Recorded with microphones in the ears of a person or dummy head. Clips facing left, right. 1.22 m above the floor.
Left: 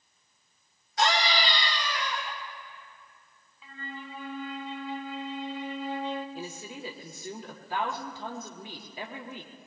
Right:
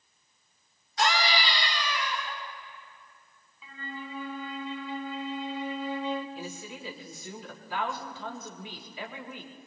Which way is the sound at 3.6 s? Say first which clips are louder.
Right 1 dB; 75° right (ahead or behind).